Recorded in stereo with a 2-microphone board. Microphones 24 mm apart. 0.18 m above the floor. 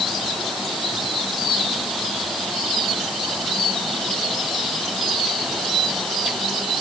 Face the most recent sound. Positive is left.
No sound to turn to.